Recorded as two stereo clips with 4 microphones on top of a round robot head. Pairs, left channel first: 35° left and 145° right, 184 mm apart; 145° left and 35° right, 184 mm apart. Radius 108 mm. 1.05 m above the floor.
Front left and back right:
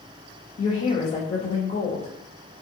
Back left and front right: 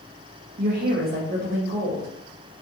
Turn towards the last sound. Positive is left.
turn(degrees=-10)